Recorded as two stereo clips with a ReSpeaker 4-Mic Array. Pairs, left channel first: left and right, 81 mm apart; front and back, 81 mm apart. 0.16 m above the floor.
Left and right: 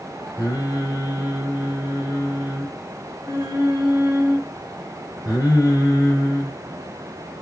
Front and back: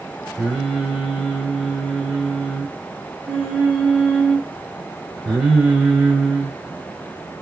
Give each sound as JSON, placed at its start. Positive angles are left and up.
{"t": 0.4, "sound": "singing", "azimuth_deg": 105, "distance_m": 2.0}